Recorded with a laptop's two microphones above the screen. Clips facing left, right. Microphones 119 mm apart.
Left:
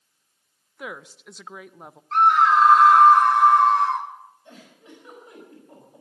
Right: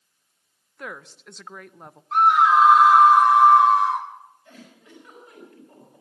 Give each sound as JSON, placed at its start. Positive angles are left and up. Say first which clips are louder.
{"t": 0.8, "sound": "a woman speaking", "louder": "left 1 dB", "side_deg": 5, "distance_m": 0.5}
{"t": 2.1, "sound": "a scream", "louder": "even", "side_deg": -5, "distance_m": 2.0}
{"t": 4.5, "sound": "a giggle", "louder": "left 1 dB", "side_deg": 25, "distance_m": 5.5}